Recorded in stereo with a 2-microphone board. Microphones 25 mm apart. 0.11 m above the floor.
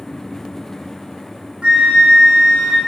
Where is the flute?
45° right (ahead or behind), 3 m.